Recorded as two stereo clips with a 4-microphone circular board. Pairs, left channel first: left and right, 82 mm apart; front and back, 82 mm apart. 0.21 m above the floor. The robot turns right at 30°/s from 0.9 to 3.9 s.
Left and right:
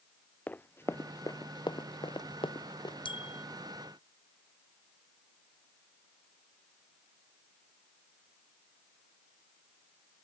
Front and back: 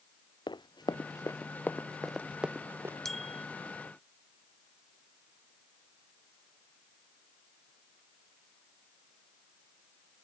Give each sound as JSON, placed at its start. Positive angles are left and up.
{"t": 0.5, "sound": "running footsteps", "azimuth_deg": 20}
{"t": 3.0, "sound": "a bicycle bell", "azimuth_deg": 85}